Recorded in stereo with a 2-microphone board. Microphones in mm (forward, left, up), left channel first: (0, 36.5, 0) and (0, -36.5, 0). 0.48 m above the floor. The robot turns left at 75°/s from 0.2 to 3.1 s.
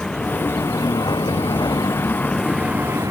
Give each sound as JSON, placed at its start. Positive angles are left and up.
{"t": 0.0, "sound": "a vehicle", "azimuth_deg": 170}